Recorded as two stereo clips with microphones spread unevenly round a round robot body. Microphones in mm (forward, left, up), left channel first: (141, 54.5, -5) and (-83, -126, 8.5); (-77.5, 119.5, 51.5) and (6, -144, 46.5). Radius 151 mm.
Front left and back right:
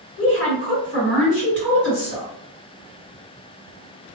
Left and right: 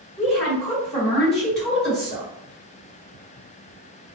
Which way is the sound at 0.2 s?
20° left.